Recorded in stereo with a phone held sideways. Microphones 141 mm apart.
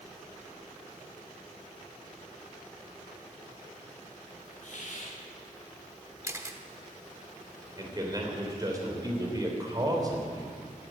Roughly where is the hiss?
Left.